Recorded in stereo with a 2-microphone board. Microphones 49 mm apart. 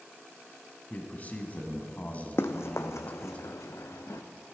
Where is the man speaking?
35° left (ahead or behind), 1.2 m.